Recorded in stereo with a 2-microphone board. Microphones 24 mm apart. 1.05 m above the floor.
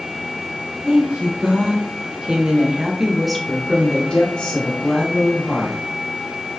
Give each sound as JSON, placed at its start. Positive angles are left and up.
{"t": 0.8, "sound": "a woman speaking", "side_deg": -70, "distance_m": 1.4}